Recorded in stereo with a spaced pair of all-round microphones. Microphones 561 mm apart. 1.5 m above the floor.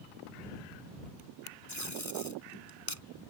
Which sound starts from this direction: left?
Tape being pulled, at 1.7 s.